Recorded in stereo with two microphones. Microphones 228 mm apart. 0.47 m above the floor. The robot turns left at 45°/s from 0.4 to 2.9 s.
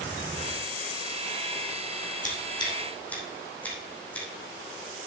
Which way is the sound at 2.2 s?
35° left (ahead or behind).